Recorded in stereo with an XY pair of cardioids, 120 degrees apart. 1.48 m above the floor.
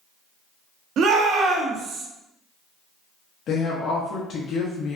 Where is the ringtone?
No ringtone in this recording.